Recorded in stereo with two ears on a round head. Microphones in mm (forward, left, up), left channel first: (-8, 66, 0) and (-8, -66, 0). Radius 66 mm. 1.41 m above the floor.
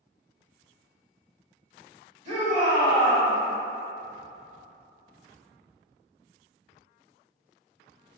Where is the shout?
45° right (ahead or behind), 2.0 m.